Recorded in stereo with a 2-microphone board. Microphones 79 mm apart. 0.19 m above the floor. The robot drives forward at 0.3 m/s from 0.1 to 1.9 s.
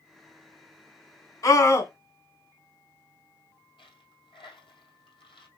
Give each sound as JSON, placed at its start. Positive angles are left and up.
{"t": 1.4, "sound": "a scream", "side_deg": 40, "distance_m": 1.4}
{"t": 3.8, "sound": "a dropped coin", "side_deg": 80, "distance_m": 2.0}